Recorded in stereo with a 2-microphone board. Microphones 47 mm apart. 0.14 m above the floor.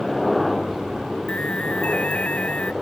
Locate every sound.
0.0 s a helicopter: centre (ahead or behind); by 2.8 s 10° right (ahead or behind)
1.3 s an alarm: 25° left (ahead or behind)